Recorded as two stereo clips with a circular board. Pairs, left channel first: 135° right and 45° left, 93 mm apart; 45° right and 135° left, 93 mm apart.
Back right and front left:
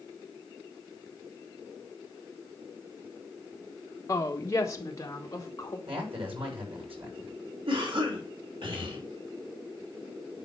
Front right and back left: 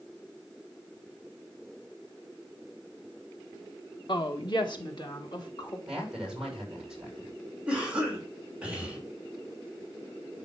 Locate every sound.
4.1 s a woman speaking: 80° right, 1.3 m; by 5.8 s 85° right, 2.5 m
5.9 s a man speaking: 50° left, 7 m
7.7 s a cough: 60° left, 3 m